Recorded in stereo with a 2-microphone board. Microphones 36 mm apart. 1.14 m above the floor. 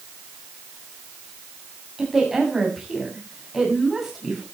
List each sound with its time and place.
2.0 s a woman speaking: 10° right (ahead or behind), 7.5 m